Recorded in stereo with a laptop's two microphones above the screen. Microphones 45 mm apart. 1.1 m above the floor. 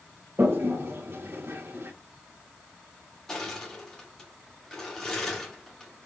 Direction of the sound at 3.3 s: 15° left (ahead or behind).